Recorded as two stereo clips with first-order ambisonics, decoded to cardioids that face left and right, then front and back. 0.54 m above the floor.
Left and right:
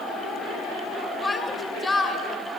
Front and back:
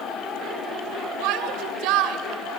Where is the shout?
170° left, 2.5 m.